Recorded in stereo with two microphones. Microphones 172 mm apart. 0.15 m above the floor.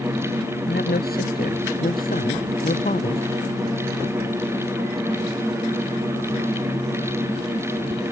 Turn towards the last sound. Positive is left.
turn(degrees=45)  # may be behind; listen again after turning